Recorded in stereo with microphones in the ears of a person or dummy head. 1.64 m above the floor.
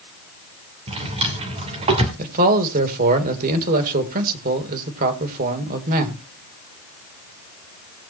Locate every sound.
0.9 s a drawer: 30° right (ahead or behind), 2.5 m
2.2 s a man speaking: 50° right (ahead or behind), 2.5 m